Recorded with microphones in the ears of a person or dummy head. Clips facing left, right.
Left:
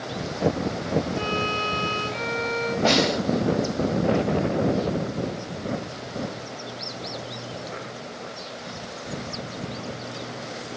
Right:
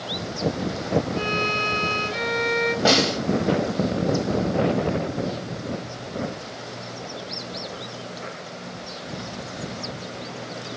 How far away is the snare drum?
About 3 m.